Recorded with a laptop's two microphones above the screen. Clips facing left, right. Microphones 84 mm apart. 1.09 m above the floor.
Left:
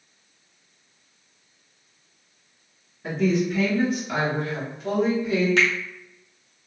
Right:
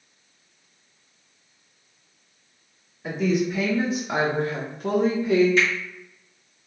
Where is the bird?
No bird in this recording.